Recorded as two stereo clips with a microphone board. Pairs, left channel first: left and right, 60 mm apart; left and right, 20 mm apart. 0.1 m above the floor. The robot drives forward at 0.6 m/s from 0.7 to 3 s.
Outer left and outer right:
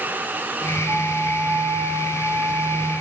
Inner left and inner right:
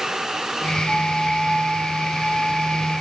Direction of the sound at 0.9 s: 55° right (ahead or behind).